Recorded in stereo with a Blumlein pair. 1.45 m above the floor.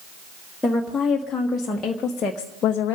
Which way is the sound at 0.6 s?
5° left.